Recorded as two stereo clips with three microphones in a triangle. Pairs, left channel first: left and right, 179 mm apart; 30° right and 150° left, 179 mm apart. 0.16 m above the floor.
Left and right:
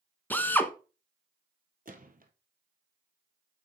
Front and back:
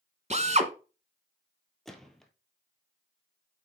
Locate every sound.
0.3 s a drill: 165° left, 1.0 m
1.9 s a gunshot: 120° right, 1.3 m